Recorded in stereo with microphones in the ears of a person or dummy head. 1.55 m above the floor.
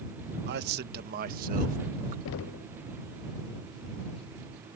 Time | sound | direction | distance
0.5 | a man speaking | 60° right (ahead or behind) | ?
2.2 | knocking | 65° left (ahead or behind) | ?